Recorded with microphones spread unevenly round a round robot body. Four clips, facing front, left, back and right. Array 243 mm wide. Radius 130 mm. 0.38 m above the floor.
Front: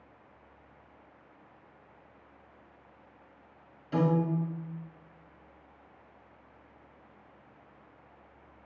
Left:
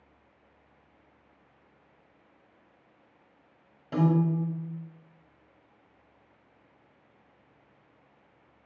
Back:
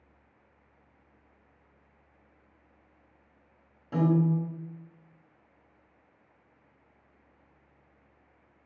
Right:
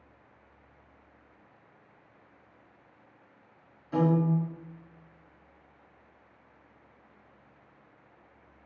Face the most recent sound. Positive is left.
turn(degrees=110)